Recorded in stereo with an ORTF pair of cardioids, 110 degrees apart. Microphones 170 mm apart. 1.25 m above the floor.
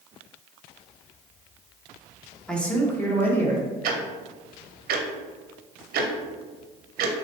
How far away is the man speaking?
About 0.7 m.